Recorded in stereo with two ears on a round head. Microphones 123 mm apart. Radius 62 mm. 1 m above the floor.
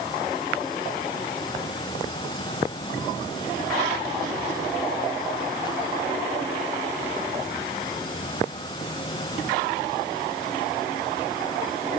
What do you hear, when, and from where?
Only background noise.